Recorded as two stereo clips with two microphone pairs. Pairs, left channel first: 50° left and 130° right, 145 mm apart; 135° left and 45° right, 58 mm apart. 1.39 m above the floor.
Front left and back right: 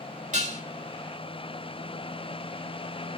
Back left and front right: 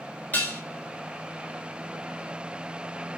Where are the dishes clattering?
165° right, 3.5 m.